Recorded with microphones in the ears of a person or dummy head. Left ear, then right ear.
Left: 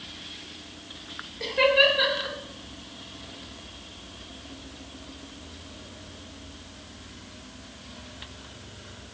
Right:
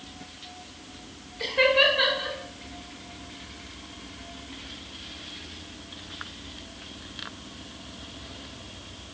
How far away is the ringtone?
No ringtone in this recording.